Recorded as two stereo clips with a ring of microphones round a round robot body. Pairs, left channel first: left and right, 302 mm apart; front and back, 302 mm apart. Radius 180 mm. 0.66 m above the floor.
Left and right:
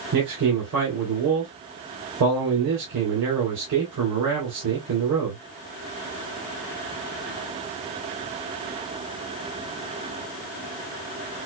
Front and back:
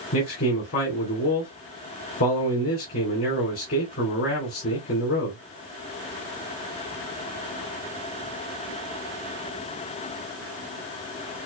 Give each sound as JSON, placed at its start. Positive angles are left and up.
{"t": 0.1, "sound": "a man speaking", "azimuth_deg": -45, "distance_m": 3.0}